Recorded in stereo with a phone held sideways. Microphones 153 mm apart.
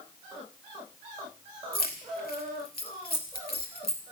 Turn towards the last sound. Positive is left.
turn(degrees=80)